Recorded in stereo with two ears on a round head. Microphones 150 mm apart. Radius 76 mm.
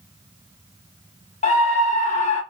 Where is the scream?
45° left (ahead or behind), 1.1 m.